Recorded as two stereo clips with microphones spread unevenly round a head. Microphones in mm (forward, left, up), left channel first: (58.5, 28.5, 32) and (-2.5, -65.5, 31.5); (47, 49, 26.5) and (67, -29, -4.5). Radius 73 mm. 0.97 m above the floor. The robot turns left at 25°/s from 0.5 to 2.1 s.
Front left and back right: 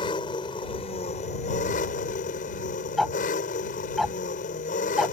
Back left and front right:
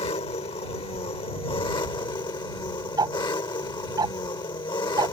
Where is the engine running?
115° left; by 5.1 s 75° left.